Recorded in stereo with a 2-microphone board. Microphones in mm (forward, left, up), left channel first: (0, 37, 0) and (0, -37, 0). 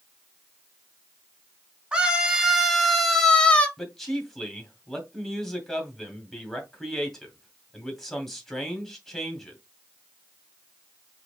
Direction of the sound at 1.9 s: 15° right (ahead or behind).